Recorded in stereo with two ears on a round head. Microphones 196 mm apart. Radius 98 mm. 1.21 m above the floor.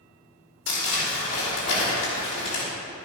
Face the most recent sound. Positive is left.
turn(degrees=60)  # may be behind; listen again after turning